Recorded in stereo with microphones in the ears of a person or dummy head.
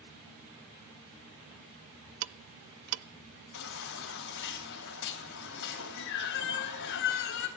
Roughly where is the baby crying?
Left.